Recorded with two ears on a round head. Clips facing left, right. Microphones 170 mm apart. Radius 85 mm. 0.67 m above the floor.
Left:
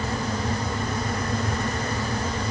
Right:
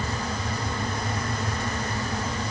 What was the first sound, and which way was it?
Only background noise.